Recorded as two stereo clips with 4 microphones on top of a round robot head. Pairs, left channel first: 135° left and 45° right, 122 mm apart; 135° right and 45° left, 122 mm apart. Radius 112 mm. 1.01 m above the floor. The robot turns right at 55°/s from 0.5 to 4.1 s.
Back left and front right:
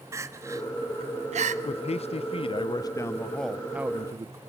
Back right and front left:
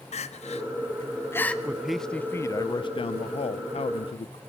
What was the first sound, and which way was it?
Crying, 110° right.